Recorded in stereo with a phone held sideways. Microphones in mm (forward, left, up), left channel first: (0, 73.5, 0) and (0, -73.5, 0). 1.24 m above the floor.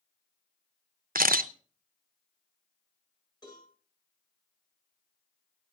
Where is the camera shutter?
80° right, 0.6 m.